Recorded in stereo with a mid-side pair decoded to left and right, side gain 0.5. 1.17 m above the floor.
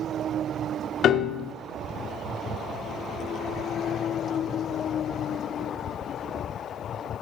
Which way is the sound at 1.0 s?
60° left.